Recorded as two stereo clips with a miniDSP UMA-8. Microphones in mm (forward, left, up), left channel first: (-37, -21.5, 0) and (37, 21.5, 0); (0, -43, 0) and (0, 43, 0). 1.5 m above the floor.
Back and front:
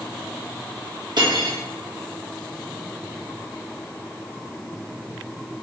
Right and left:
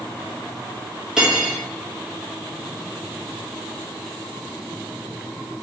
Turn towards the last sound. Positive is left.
turn(degrees=10)